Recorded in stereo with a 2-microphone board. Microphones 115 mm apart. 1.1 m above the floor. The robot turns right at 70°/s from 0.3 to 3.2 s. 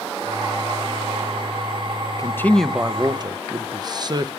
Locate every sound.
2.2 s a man speaking: 150° left, 0.5 m; by 4.3 s 140° right, 0.5 m